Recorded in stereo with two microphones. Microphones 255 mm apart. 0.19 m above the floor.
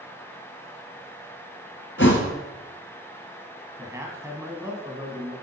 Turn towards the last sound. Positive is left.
turn(degrees=-10)  # may be behind; listen again after turning